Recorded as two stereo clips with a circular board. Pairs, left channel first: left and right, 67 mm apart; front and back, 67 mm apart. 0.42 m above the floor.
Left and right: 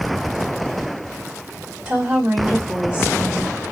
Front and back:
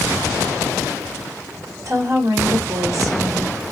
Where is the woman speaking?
170° right, 1.7 m.